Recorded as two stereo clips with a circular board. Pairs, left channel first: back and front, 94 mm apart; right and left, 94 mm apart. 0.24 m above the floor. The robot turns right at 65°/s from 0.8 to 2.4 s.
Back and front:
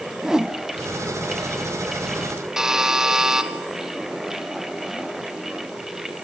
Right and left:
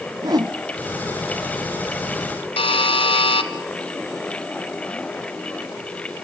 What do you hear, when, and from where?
0.2 s a whoosh: 80° left, 0.7 m
2.6 s a buzzer: 85° right, 0.9 m